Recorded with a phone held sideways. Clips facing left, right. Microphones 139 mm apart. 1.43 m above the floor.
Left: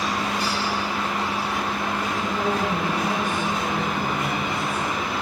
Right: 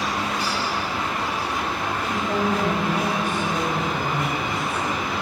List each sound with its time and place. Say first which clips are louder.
2.0 s a woman speaking: right 3 dB; 65° right (ahead or behind), 8.5 m